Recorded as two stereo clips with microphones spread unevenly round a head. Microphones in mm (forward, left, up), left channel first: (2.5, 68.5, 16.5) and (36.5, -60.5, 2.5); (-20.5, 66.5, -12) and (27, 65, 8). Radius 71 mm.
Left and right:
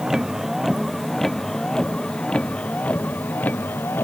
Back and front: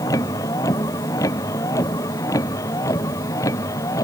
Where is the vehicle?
165° right; by 4.0 s 175° right.